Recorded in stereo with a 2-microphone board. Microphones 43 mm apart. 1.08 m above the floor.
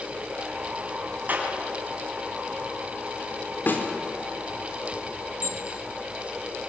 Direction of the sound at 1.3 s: 40° right (ahead or behind).